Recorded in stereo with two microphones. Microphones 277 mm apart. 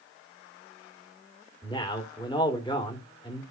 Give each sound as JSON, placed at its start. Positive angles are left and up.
{"t": 1.6, "sound": "a man speaking", "side_deg": 15, "distance_m": 3.0}